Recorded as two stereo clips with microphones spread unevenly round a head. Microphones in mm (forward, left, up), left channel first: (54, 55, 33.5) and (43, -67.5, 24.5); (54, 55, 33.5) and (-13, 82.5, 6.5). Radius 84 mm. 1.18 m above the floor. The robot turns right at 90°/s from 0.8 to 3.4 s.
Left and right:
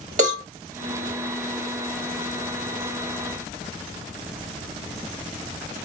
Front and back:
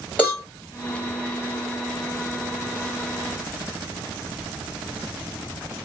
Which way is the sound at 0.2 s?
110° right.